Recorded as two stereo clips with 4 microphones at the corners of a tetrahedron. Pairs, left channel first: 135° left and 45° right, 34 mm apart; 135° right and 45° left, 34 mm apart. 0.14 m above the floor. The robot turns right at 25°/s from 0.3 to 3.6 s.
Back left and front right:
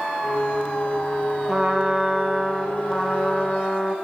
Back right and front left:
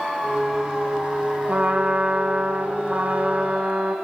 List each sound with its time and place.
1.5 s a trumpet: 35° left, 4.5 m; by 4.0 s 85° left, 4.5 m